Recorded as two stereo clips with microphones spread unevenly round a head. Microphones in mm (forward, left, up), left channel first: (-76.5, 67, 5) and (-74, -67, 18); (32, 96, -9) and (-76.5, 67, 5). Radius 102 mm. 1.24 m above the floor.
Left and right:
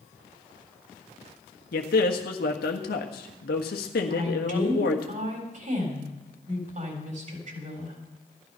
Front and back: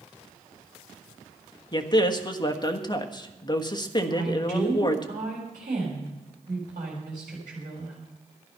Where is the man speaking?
65° left, 1.4 m.